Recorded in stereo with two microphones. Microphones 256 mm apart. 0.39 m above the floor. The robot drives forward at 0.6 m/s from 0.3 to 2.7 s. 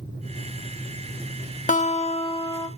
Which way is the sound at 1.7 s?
30° left (ahead or behind).